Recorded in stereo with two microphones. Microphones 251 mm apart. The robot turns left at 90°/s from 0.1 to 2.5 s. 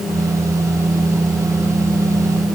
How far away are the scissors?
No scissors in this recording.